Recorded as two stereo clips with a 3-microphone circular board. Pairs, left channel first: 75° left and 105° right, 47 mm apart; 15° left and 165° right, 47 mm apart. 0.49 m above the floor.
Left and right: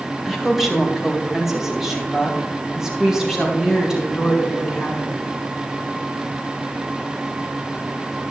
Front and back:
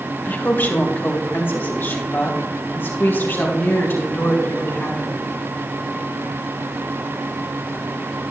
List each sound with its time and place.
0.2 s a woman speaking: 20° right, 1.8 m; by 5.2 s 25° right, 5 m